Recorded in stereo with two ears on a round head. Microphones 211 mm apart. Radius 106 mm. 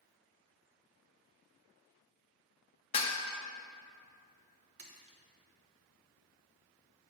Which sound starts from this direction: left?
Dishes clattering, at 2.9 s.